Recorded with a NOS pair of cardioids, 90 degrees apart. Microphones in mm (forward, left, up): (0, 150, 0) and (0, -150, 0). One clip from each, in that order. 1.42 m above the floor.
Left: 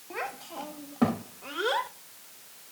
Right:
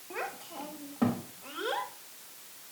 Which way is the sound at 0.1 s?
15° left.